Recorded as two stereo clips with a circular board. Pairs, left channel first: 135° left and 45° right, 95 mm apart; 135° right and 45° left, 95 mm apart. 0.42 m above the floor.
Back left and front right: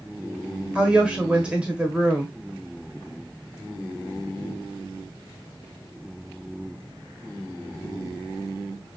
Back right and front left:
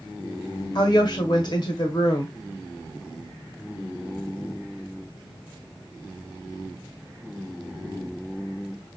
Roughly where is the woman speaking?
Behind right.